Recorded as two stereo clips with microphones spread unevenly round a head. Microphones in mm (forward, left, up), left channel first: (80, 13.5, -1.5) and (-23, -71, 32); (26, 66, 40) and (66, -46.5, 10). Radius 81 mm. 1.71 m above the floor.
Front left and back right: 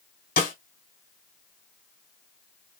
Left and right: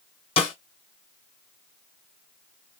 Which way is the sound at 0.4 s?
70° left.